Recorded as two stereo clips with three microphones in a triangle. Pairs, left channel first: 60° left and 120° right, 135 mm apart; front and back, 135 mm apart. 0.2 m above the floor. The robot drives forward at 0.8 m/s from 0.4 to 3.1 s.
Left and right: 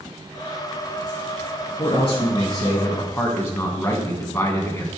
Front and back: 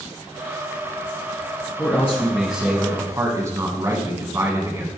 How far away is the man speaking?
About 1.4 m.